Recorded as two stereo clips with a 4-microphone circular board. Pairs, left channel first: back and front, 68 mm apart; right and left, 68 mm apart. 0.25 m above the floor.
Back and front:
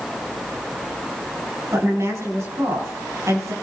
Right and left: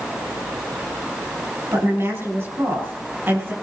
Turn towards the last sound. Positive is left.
turn(degrees=35)